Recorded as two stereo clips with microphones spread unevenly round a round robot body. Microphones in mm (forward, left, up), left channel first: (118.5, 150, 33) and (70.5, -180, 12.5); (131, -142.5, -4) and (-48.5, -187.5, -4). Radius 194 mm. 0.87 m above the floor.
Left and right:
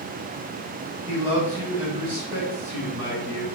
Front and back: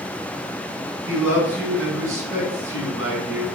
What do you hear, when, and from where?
1.1 s a man speaking: 175° left, 4 m